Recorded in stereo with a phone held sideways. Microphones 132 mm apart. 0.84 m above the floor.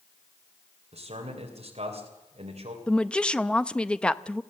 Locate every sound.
0.9 s a man speaking: 55° right (ahead or behind), 3 m
2.9 s a woman speaking: 5° left (ahead or behind), 0.6 m